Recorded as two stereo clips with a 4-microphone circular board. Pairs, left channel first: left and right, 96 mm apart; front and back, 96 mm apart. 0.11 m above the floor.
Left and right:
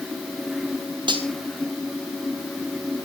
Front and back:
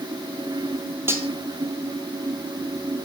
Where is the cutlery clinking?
120° right, 2 m.